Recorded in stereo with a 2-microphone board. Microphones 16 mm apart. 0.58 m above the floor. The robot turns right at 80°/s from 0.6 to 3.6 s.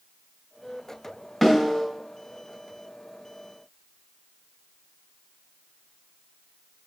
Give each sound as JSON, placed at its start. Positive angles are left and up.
{"t": 1.4, "sound": "a snare drum", "azimuth_deg": 5, "distance_m": 2.5}